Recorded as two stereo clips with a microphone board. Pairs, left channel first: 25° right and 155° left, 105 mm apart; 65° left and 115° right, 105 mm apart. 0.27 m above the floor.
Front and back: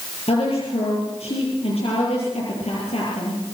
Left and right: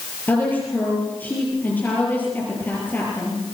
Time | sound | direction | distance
0.3 | a woman speaking | 5° right | 8 m